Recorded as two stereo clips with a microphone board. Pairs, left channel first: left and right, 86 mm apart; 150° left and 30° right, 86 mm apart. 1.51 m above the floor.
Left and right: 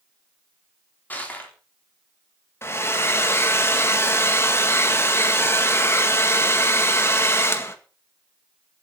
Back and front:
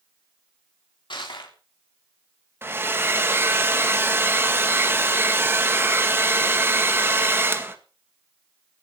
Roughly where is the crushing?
Behind.